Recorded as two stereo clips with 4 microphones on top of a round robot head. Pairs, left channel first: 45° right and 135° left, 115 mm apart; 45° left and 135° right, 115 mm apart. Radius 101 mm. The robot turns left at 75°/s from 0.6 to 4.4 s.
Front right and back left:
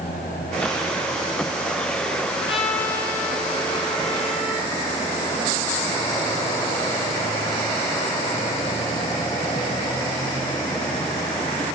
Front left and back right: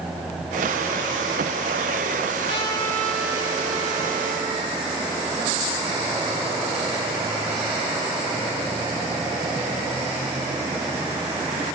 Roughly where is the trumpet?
Ahead.